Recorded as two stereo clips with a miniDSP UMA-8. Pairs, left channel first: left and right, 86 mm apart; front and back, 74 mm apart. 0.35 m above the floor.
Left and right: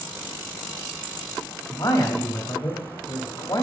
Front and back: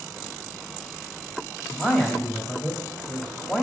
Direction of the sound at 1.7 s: 95° left.